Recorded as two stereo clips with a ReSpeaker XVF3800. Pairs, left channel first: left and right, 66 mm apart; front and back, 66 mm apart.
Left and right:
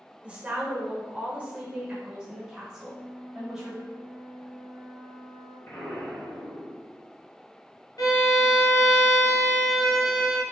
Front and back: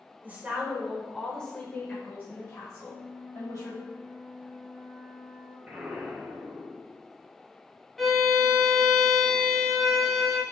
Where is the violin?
85° left, 0.7 m.